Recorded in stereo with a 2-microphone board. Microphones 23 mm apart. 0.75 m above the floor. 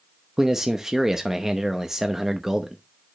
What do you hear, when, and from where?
0.4 s a man speaking: 20° right (ahead or behind), 0.7 m